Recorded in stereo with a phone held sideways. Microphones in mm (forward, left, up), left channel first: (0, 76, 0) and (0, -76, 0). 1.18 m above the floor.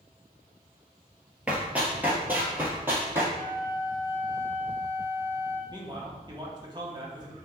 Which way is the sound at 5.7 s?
30° right (ahead or behind).